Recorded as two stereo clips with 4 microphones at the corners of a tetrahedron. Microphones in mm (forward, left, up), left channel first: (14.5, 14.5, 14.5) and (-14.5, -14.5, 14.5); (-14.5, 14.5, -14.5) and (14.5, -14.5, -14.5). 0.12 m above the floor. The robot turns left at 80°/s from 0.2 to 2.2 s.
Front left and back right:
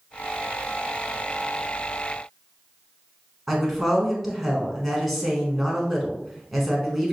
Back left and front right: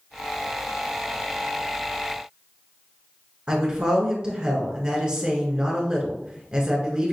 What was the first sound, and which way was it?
A woman speaking, 50° right.